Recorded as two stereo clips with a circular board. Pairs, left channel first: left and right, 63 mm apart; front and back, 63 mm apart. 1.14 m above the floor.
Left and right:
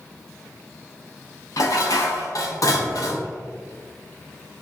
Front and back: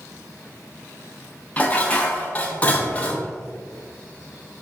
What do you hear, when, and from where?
1.6 s dishes clattering: 70° left, 0.6 m